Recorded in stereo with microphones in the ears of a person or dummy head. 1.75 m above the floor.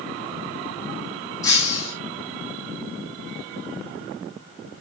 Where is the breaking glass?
20° left (ahead or behind), 3.5 m.